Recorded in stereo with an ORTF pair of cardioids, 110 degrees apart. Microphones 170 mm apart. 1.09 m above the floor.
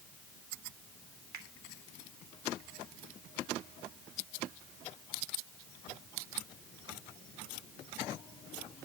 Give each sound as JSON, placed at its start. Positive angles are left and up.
{"t": 1.3, "sound": "a finger snap", "azimuth_deg": -70, "distance_m": 3.0}